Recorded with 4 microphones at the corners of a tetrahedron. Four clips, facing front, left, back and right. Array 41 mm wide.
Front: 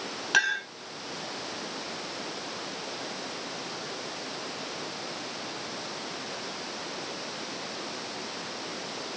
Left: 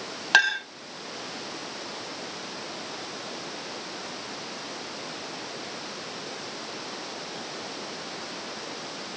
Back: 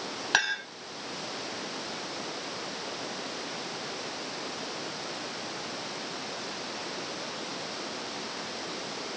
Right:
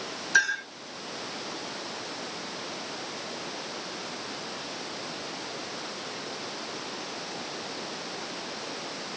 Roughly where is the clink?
Left.